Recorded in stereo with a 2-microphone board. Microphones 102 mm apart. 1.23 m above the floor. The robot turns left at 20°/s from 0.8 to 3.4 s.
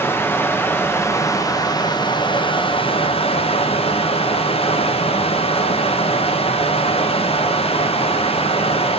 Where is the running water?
160° left, 1.0 m; by 9.0 s 105° left, 1.0 m.